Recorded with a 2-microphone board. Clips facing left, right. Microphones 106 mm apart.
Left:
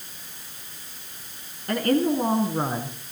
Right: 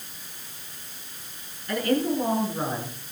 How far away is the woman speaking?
About 4.5 m.